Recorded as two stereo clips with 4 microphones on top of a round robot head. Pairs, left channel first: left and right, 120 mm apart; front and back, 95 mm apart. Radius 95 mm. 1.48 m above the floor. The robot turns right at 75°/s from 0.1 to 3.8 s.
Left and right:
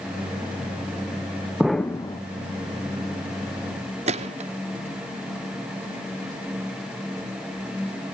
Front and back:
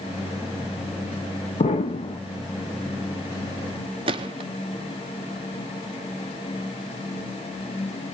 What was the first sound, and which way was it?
An explosion, 5° right.